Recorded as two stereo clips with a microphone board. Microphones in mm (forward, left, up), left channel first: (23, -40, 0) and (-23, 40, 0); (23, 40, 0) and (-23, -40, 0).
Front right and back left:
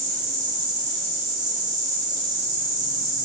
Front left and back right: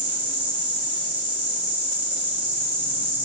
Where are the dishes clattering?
No dishes clattering in this recording.